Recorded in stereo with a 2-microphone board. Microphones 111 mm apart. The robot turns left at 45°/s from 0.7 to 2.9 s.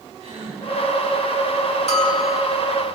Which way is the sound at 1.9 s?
60° left (ahead or behind).